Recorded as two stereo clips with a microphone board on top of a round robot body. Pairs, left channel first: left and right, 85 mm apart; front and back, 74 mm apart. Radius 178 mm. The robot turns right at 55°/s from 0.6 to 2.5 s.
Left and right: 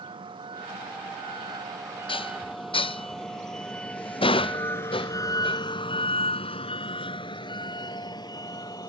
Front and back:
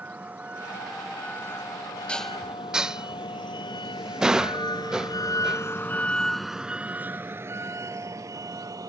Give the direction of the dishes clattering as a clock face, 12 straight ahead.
9 o'clock.